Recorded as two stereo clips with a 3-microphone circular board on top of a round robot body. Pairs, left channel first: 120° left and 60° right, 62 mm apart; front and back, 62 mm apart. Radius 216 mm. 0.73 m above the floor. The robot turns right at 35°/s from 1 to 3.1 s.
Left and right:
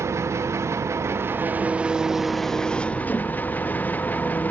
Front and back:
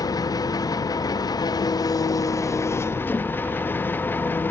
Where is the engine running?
15° right, 1.1 m; by 4.5 s 55° left, 1.1 m.